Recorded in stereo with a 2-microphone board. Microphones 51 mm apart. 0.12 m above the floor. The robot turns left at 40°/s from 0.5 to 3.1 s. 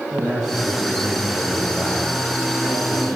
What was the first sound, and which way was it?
A man speaking, 150° right.